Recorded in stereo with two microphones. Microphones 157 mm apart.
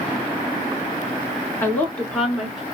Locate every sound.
1.6 s a woman speaking: 15° left (ahead or behind), 1.6 m; by 2.6 s 5° right (ahead or behind), 1.8 m